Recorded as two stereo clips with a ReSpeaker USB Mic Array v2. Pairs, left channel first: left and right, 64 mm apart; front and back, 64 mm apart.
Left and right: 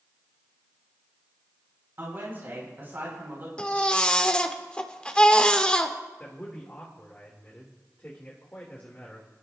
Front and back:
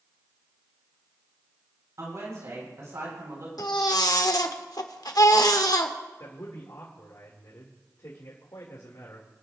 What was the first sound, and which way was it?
A woman speaking, 145° right.